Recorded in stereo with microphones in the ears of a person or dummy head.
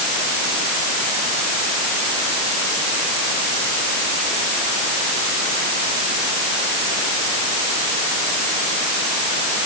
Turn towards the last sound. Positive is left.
No sound to turn to.